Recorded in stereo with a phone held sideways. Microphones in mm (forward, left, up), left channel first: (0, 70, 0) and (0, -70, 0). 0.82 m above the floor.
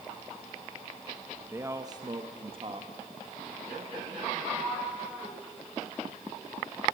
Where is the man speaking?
20° right (ahead or behind), 1.1 m; by 4.3 s 50° right (ahead or behind), 2.5 m.